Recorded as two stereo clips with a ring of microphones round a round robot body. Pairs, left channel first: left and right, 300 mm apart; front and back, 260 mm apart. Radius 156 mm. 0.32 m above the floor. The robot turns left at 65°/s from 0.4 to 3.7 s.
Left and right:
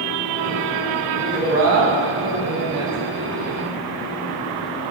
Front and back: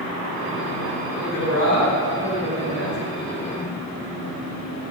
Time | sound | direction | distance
1.2 | a woman speaking | 15° right | 2 m